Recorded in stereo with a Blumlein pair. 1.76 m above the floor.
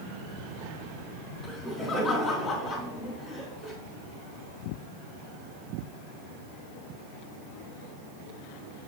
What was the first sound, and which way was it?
Laughter, 20° left.